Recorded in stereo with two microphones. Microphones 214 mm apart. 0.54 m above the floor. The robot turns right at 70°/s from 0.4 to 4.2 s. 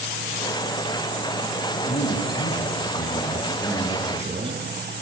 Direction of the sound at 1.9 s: 40° left.